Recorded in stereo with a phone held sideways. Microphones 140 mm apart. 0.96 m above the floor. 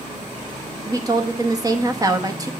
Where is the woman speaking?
25° right (ahead or behind), 0.9 m.